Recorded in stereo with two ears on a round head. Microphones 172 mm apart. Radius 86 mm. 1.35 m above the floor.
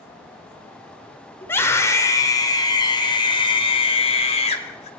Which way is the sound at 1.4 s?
10° left (ahead or behind).